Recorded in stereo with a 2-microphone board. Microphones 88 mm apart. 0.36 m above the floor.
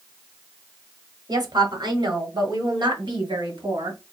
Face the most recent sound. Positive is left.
turn(degrees=-55)  # may be behind; listen again after turning